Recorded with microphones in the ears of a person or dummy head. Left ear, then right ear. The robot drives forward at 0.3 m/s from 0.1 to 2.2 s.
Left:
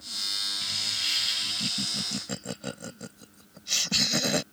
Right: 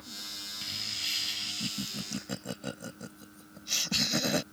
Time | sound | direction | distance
0.6 | laughter | 5° left (ahead or behind) | ?